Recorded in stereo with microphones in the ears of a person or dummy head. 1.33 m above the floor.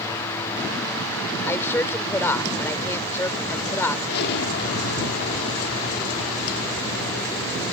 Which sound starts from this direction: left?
An explosion, at 4.1 s.